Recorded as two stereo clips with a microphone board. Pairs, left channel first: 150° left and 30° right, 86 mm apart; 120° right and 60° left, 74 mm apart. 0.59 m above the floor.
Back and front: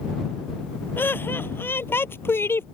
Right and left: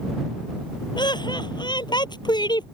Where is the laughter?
145° right.